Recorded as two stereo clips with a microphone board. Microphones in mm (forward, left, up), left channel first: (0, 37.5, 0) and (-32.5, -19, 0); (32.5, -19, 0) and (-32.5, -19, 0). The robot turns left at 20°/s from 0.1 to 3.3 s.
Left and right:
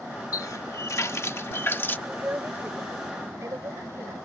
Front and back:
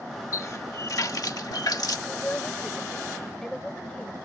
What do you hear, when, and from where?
0.3 s a running tap: 35° left; by 2.0 s 5° left
2.1 s a woman speaking: 60° right; by 4.2 s 85° right